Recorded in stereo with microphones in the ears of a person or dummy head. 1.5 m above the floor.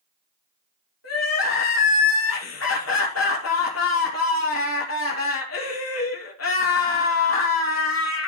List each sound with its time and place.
1.0 s crying: 75° left (ahead or behind), 2.5 m